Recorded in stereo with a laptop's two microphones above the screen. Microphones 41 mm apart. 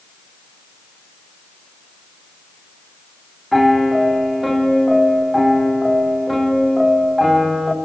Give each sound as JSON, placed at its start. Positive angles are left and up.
{"t": 3.5, "sound": "a piano", "side_deg": 0, "distance_m": 0.9}